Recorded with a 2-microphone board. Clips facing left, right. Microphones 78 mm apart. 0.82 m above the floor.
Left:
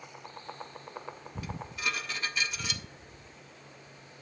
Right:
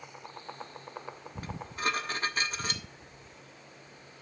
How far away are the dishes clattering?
About 1.2 m.